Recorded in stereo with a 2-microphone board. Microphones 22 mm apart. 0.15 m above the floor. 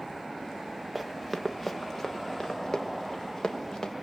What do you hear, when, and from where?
0.9 s running footsteps: centre (ahead or behind), 1.2 m; by 3.9 s 40° left (ahead or behind), 2.5 m